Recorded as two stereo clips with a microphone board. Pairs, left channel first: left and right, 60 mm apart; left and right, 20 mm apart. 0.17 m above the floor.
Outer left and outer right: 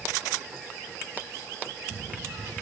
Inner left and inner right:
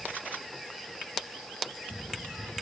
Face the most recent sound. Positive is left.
No sound to turn to.